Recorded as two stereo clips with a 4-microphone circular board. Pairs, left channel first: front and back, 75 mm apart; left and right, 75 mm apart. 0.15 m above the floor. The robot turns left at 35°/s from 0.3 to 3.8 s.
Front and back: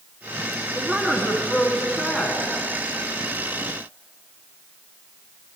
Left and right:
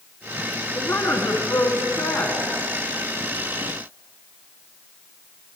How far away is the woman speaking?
About 1.1 m.